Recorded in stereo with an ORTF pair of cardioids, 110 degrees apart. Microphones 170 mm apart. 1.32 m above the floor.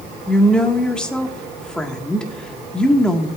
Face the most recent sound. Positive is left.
turn(degrees=5)